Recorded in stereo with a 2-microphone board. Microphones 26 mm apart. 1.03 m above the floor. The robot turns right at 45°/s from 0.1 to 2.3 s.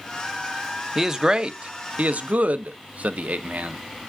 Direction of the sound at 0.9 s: 15° right (ahead or behind).